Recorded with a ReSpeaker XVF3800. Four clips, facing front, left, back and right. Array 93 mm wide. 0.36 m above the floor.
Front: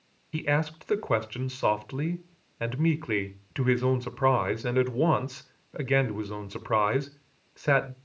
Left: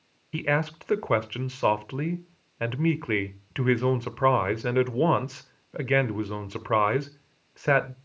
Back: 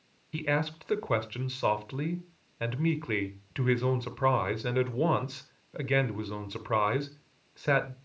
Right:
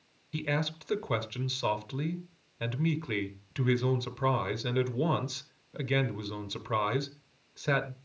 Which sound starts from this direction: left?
A man speaking, at 0.3 s.